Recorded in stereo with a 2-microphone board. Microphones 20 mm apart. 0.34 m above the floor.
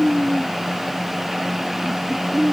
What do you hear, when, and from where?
Only background noise.